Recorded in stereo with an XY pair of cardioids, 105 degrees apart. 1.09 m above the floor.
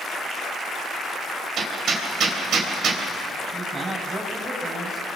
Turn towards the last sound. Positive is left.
turn(degrees=-25)